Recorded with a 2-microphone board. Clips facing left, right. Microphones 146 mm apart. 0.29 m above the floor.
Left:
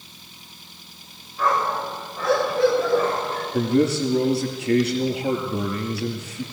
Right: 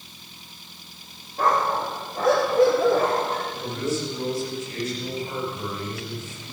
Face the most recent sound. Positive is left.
turn(degrees=80)